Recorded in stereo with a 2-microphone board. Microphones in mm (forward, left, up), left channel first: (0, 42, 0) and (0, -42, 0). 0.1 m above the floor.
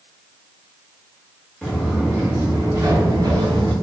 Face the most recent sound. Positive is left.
turn(degrees=-65)  # may be behind; listen again after turning